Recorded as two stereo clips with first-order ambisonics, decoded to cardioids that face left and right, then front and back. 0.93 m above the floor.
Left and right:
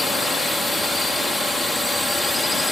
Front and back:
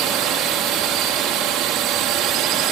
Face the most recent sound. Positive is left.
turn(degrees=170)